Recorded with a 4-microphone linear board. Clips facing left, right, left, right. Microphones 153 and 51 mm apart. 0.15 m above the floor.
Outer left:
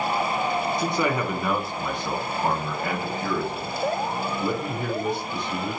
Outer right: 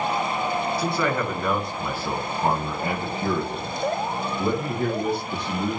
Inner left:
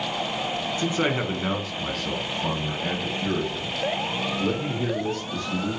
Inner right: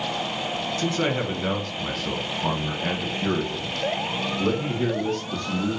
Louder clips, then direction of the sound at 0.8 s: Even, even; 20° left (ahead or behind).